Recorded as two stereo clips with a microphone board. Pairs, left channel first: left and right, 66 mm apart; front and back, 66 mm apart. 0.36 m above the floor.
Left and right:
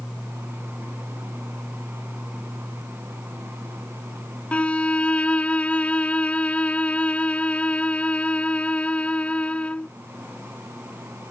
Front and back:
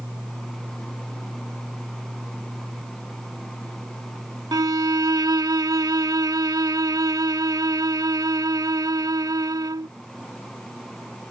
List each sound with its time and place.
4.5 s a violin: 160° left